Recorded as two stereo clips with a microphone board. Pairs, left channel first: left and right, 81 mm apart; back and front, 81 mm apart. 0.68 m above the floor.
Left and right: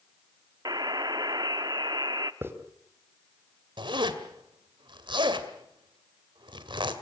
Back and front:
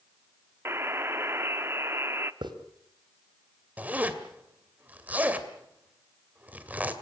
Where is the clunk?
No clunk in this recording.